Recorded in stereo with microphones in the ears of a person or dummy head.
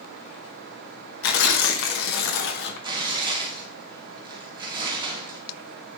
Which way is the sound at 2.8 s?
20° right (ahead or behind).